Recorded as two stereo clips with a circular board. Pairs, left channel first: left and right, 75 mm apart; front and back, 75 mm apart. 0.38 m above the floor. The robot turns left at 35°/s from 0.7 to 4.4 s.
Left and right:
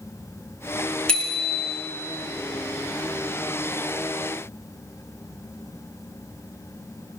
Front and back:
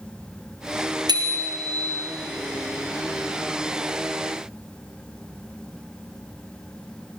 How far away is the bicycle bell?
About 3 m.